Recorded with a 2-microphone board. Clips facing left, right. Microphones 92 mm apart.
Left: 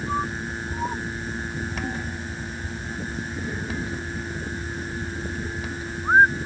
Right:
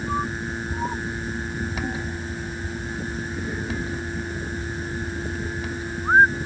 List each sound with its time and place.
Only background noise.